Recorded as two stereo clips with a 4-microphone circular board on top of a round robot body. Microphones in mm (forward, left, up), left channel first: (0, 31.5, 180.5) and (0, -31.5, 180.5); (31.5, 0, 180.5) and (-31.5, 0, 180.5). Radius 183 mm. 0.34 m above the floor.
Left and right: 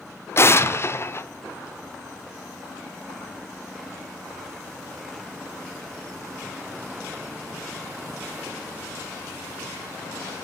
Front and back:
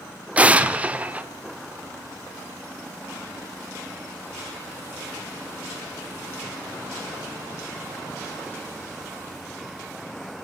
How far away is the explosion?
About 1.8 m.